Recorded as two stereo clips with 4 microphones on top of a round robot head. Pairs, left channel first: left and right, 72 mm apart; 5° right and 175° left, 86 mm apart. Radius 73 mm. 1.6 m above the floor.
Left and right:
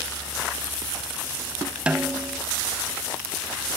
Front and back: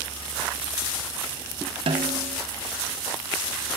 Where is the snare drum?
165° right, 0.8 m.